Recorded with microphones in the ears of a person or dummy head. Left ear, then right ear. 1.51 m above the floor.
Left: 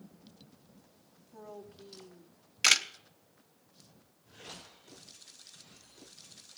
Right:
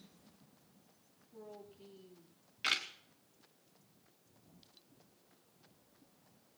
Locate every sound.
1.3 s a woman speaking: 55° left (ahead or behind), 3 m; by 2.4 s 65° left (ahead or behind), 2.5 m
2.6 s a camera shutter: 85° left, 1.1 m